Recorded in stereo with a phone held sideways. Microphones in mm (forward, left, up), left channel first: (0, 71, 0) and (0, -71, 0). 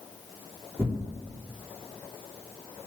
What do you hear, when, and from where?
0.8 s tearing paper: 15° left (ahead or behind), 3.5 m